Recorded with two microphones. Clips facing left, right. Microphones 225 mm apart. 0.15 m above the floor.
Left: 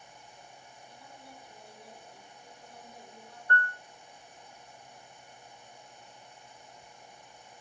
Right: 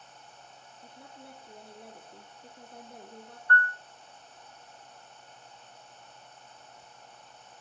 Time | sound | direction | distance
0.8 | a woman speaking | 55° right (ahead or behind) | 5 m
3.5 | a piano | 20° left (ahead or behind) | 0.5 m